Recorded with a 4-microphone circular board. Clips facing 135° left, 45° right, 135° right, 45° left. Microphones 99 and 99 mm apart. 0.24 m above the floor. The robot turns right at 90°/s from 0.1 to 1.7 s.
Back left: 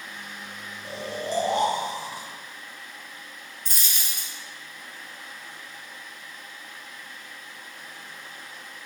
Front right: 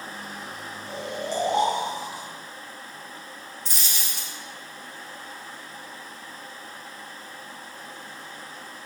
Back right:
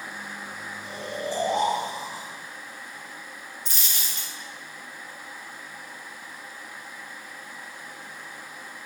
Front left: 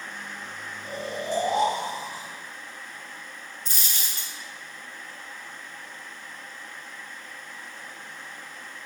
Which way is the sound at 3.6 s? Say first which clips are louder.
Even, even; 95° left.